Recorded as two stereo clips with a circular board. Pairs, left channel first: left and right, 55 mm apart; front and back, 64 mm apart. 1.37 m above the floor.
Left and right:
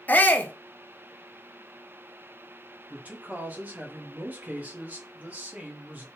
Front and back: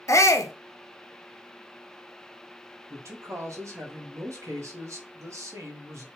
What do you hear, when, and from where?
0.1 s a shout: 35° left, 0.5 m
2.9 s a man speaking: 150° right, 0.9 m